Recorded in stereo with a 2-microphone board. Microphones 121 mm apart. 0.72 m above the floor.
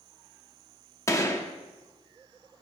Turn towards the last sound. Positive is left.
turn(degrees=25)  # may be behind; listen again after turning